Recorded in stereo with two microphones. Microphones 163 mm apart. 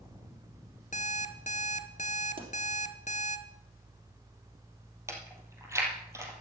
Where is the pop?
65° right (ahead or behind), 3 m.